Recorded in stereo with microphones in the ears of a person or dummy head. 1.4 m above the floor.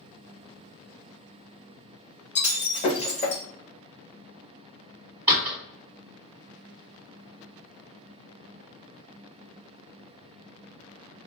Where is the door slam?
15° right (ahead or behind), 1.5 m.